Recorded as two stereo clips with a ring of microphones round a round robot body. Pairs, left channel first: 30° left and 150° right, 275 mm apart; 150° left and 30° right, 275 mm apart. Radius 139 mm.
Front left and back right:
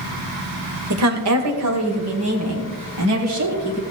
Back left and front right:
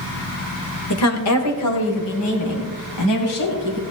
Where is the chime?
I don't hear a chime.